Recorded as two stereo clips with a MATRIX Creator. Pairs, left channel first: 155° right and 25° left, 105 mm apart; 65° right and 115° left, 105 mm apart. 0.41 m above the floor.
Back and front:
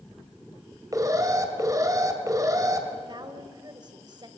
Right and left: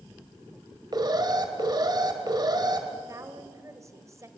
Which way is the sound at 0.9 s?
75° left.